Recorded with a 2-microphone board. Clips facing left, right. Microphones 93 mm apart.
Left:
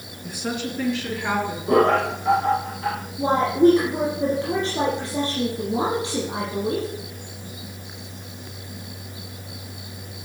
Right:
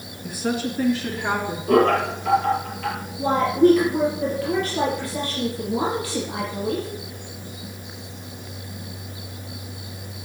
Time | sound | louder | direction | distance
0.2 | a woman speaking | right 3 dB | centre (ahead or behind) | 1.9 m
1.7 | laughter | even | 25° left (ahead or behind) | 5 m
3.2 | a woman speaking | even | 25° left (ahead or behind) | 4 m